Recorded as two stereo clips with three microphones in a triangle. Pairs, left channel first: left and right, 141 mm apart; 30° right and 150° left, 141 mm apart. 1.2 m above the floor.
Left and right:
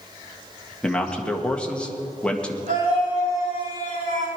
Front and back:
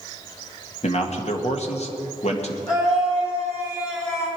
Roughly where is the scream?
Right.